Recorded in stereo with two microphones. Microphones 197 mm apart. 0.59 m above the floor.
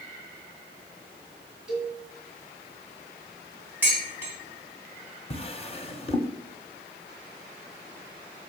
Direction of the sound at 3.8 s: 10° right (ahead or behind).